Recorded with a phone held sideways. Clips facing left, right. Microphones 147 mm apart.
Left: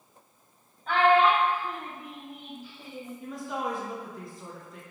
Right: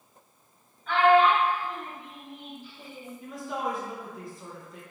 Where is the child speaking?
45° left (ahead or behind), 1.6 m; by 3.1 s 5° right (ahead or behind), 1.4 m.